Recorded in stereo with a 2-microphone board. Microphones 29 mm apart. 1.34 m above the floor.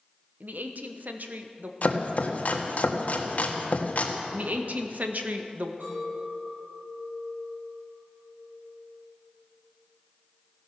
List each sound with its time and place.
0.4 s a woman speaking: 65° right (ahead or behind), 1.1 m
1.8 s chopping: 55° left (ahead or behind), 1.6 m
4.3 s a woman speaking: 65° right (ahead or behind), 1.4 m
5.8 s a clink: 85° right, 5.5 m